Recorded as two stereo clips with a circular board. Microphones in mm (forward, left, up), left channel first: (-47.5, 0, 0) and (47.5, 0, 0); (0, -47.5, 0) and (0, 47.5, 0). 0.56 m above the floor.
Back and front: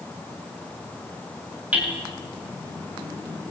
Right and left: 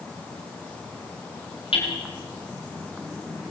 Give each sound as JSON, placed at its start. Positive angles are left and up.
{"t": 1.7, "sound": "hammering", "azimuth_deg": -75, "distance_m": 6.0}